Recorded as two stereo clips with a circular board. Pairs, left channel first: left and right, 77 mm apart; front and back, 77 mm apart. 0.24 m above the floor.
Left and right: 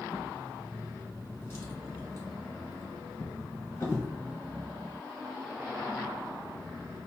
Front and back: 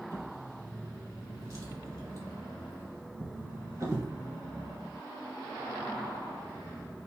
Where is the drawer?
145° left, 1.3 m.